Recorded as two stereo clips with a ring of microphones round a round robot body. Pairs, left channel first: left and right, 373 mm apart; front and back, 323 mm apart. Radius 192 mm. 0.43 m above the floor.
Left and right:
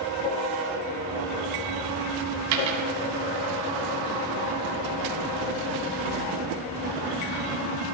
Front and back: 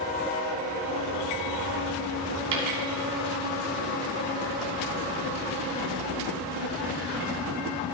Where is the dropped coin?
135° right, 1.7 m.